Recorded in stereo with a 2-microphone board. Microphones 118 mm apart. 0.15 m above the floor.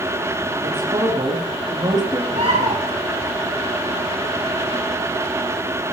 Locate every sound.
0.6 s a man speaking: 40° right (ahead or behind), 6.5 m
2.3 s a bird: 55° right (ahead or behind), 5.5 m